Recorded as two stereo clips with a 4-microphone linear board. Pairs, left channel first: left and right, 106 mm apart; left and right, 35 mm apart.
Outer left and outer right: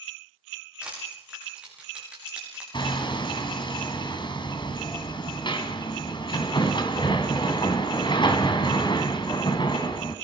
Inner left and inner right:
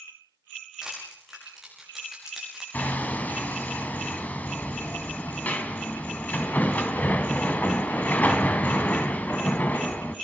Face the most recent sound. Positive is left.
turn(degrees=50)  # may be behind; listen again after turning